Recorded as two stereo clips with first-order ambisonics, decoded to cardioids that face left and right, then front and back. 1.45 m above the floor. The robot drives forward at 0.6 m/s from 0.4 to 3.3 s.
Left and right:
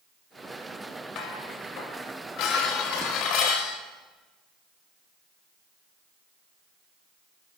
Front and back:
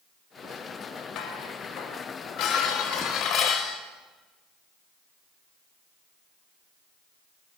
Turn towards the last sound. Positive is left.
turn(degrees=65)